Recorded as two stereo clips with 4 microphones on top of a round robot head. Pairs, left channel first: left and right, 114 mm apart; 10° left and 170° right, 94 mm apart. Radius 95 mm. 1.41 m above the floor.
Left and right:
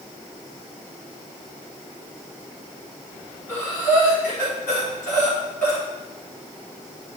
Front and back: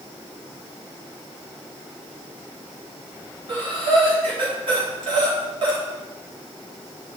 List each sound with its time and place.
3.5 s breathing: 165° left, 3 m